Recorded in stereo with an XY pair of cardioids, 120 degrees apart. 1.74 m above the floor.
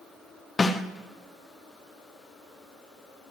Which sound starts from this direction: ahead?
A snare drum, at 0.6 s.